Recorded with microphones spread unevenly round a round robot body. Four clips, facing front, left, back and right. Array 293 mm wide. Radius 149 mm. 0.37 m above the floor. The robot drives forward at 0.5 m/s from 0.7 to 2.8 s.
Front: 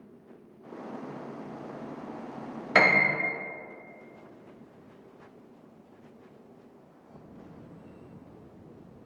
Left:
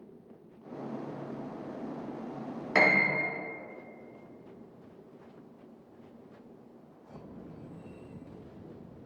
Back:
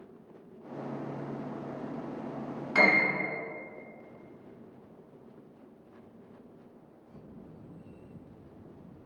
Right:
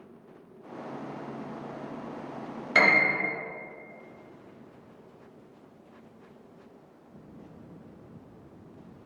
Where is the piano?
10° left, 0.6 m.